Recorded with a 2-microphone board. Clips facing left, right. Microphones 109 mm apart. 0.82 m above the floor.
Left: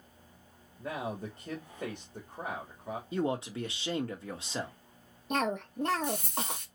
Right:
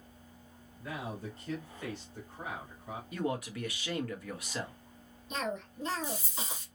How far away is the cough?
About 0.9 m.